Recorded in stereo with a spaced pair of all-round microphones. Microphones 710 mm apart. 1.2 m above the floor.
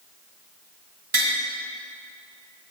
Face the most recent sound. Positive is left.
turn(degrees=-30)  # may be behind; listen again after turning